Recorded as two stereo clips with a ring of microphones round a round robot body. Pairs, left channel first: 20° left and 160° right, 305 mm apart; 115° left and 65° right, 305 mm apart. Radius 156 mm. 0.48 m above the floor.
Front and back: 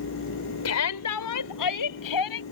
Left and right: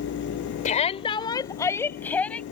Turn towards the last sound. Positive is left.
turn(degrees=25)